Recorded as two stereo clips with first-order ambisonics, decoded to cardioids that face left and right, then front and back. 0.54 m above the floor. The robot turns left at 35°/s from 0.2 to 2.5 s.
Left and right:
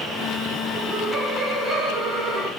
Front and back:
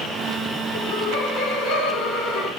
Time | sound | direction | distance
0.7 | laughter | 5° left | 4.5 m